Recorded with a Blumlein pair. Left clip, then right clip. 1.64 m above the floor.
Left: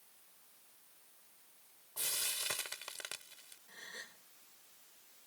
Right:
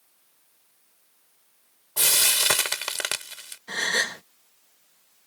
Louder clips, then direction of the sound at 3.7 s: Right 26 dB; 40° right.